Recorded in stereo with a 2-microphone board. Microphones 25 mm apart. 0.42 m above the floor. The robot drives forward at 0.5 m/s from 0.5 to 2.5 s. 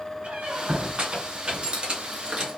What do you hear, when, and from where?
0.2 s a squeak: 50° right (ahead or behind), 1.9 m; by 2.6 s 35° right (ahead or behind), 2.5 m